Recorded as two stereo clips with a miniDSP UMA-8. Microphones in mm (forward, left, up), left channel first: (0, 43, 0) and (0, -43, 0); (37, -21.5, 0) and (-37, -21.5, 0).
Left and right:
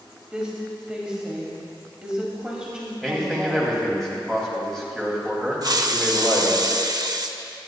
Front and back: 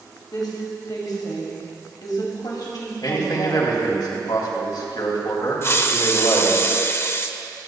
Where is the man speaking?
Straight ahead, 2.5 m.